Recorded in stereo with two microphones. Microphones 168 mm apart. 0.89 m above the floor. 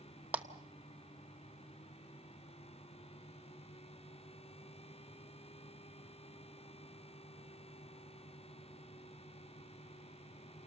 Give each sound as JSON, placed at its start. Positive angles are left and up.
{"t": 0.3, "sound": "a clap", "side_deg": -10, "distance_m": 1.2}